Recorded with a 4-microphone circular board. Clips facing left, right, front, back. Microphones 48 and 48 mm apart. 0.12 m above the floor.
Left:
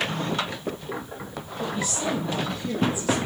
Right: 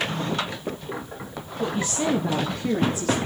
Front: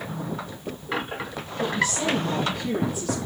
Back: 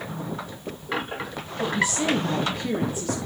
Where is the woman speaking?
115° right, 1.5 m.